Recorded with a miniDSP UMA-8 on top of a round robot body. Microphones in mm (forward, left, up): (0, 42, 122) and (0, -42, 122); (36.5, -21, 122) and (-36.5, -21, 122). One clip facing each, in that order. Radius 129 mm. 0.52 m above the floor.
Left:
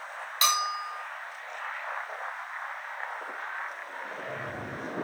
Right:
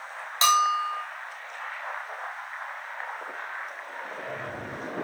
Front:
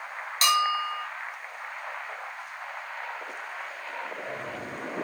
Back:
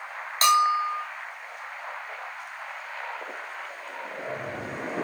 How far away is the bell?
About 1.1 m.